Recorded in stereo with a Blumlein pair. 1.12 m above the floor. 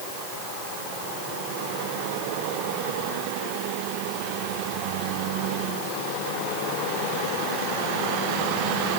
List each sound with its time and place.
Only background noise.